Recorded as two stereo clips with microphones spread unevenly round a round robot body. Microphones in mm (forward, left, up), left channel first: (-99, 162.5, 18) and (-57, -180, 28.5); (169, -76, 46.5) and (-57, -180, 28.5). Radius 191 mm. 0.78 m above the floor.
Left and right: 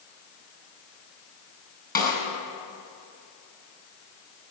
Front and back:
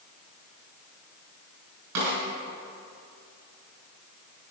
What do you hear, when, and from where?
1.9 s a snare drum: 160° left, 4.5 m